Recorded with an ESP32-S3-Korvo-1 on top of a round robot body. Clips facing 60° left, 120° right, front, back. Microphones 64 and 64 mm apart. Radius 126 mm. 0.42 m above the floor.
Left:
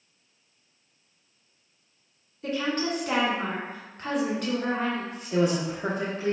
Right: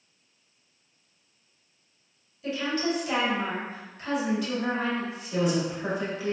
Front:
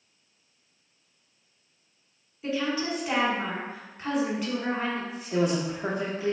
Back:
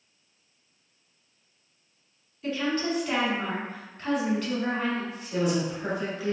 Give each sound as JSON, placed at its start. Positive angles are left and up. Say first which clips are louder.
{"t": 2.4, "sound": "a woman speaking", "louder": "even, back 1 dB", "azimuth_deg": 75, "distance_m": 1.8}
{"t": 5.3, "sound": "a woman speaking", "louder": "left 2 dB, front 1 dB", "azimuth_deg": 30, "distance_m": 0.8}